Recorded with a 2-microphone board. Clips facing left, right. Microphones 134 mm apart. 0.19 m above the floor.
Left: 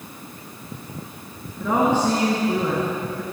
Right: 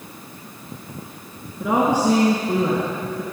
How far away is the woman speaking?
About 3 m.